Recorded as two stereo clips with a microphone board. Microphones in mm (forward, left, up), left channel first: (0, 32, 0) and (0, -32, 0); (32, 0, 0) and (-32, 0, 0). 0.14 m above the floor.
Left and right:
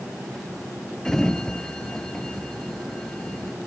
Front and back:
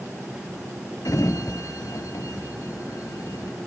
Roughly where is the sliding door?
Ahead.